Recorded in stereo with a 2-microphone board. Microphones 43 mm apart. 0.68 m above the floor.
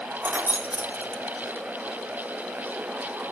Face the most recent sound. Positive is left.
turn(degrees=-45)  # may be behind; listen again after turning